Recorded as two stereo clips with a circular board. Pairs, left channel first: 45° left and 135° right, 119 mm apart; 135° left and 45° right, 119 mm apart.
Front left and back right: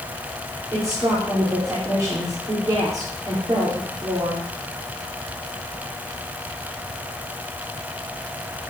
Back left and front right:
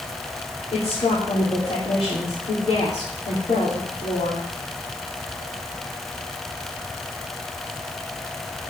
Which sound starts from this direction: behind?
A woman speaking, at 0.7 s.